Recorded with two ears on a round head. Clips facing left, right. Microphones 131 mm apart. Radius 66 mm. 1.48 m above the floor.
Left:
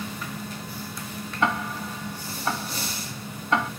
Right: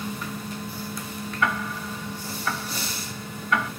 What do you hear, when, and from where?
1.4 s ticking: 25° left (ahead or behind), 0.8 m